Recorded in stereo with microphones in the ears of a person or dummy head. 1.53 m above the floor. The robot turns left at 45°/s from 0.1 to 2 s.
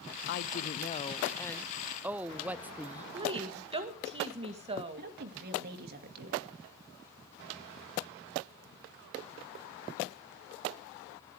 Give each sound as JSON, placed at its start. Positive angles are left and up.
{"t": 0.3, "sound": "a woman speaking", "azimuth_deg": 65, "distance_m": 0.6}
{"t": 3.1, "sound": "a woman speaking", "side_deg": -25, "distance_m": 1.8}
{"t": 5.0, "sound": "a woman speaking", "side_deg": -55, "distance_m": 2.5}